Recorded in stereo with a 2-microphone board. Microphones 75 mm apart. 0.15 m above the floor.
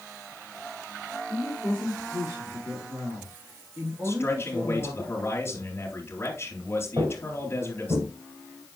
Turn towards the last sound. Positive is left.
turn(degrees=-80)